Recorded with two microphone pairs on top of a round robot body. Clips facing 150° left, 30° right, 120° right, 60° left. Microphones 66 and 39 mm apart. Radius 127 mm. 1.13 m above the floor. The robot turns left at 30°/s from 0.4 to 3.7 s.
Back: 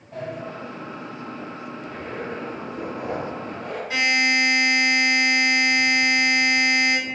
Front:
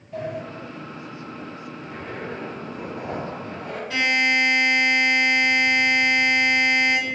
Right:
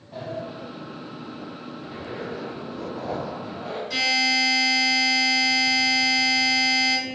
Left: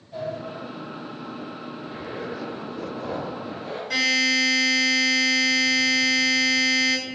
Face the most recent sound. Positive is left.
turn(degrees=70)